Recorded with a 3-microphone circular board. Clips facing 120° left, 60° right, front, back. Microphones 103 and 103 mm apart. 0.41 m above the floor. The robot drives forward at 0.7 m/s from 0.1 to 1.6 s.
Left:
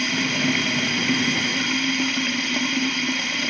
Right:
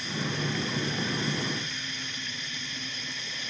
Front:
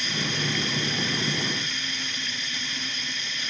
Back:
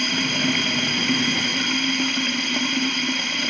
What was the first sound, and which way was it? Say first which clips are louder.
Running water: left 8 dB, back 6 dB; 145° left.